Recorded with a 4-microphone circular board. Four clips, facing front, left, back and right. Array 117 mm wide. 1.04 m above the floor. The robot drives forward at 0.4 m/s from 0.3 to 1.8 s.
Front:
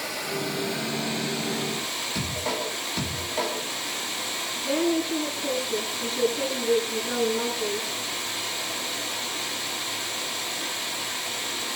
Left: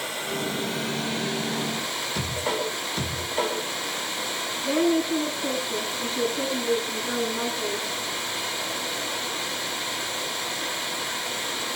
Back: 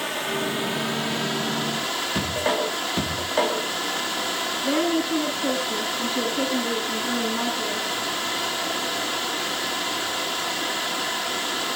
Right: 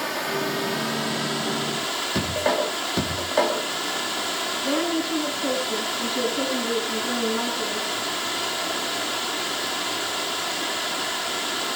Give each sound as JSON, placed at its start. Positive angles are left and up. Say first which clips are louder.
{"t": 0.0, "sound": "running water", "louder": "right 4 dB, back 4 dB", "azimuth_deg": -115, "distance_m": 1.5}
{"t": 2.1, "sound": "a man speaking", "louder": "right 6 dB, back 6 dB", "azimuth_deg": -115, "distance_m": 1.5}
{"t": 4.6, "sound": "a woman speaking", "louder": "left 3 dB, back 1 dB", "azimuth_deg": -120, "distance_m": 9.5}